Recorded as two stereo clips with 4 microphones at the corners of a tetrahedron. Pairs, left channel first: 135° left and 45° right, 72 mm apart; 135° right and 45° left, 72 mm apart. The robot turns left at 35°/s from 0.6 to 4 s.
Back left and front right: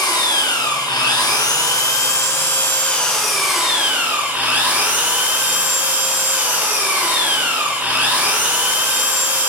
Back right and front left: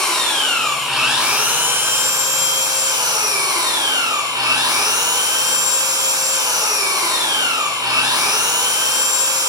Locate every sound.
0.0 s an engine running: 140° left, 3.5 m; by 9.5 s 25° left, 3.5 m